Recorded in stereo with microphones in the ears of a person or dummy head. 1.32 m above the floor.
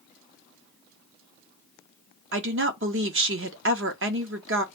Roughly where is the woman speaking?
Right.